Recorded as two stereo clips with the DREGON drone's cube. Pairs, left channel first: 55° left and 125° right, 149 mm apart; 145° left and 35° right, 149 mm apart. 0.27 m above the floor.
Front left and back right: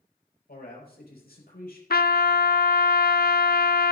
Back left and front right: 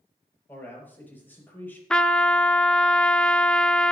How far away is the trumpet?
About 0.6 m.